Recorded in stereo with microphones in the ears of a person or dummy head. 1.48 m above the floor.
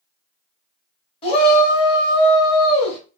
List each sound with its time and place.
1.2 s a shout: 30° left (ahead or behind), 1.5 m